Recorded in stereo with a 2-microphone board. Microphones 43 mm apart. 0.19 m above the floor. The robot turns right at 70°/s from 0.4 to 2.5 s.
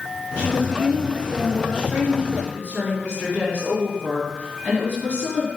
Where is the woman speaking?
100° left, 1.9 m; by 5.5 s 115° right, 1.9 m.